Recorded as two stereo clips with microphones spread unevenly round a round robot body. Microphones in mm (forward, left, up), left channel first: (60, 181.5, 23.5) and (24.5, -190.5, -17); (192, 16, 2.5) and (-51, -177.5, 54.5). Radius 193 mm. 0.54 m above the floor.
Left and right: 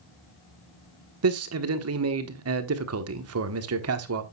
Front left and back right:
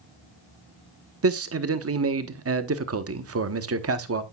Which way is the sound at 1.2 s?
105° right.